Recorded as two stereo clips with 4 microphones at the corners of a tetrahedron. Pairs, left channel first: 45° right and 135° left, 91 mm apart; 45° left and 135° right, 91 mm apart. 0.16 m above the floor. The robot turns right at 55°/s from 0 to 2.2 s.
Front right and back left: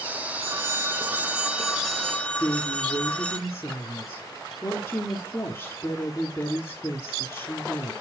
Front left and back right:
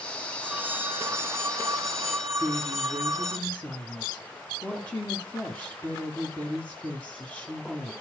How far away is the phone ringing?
About 0.9 m.